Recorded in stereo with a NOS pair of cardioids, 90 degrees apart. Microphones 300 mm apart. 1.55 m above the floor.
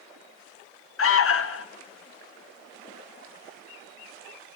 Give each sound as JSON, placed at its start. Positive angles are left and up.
{"t": 1.0, "sound": "an alarm", "azimuth_deg": 50, "distance_m": 1.3}